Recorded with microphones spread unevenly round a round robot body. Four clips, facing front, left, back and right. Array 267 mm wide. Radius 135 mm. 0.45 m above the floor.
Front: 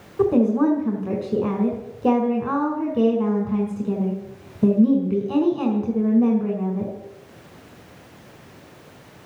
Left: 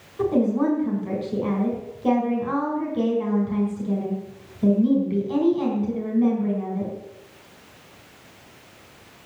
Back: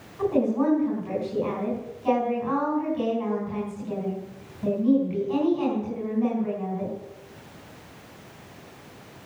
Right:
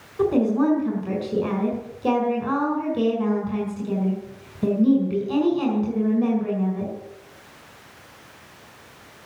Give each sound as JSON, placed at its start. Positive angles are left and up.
{"t": 0.2, "sound": "a woman speaking", "azimuth_deg": -5, "distance_m": 5.5}